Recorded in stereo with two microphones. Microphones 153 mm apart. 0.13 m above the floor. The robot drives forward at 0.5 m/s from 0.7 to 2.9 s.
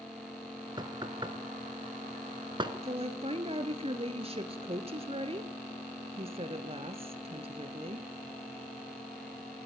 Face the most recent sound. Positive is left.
turn(degrees=-40)  # may be behind; listen again after turning